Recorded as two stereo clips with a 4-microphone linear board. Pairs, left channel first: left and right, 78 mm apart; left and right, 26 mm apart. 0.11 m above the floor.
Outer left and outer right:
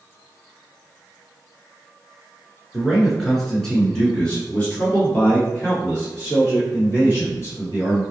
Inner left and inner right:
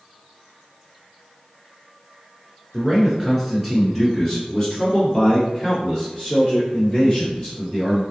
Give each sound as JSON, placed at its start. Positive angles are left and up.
{"t": 2.7, "sound": "a man speaking", "side_deg": -5, "distance_m": 1.5}